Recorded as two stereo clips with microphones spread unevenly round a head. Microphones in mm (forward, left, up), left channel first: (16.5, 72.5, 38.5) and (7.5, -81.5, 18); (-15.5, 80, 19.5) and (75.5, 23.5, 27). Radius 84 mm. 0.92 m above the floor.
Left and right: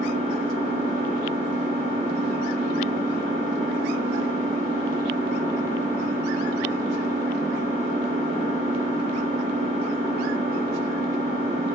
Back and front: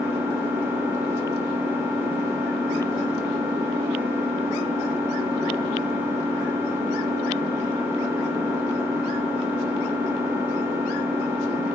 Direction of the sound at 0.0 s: 35° left.